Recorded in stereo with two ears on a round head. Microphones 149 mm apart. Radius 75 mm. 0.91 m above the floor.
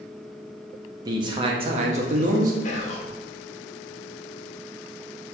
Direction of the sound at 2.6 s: 45° left (ahead or behind).